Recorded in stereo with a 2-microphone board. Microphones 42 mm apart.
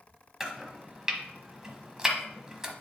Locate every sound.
0.4 s chopping: 15° right (ahead or behind), 1.1 m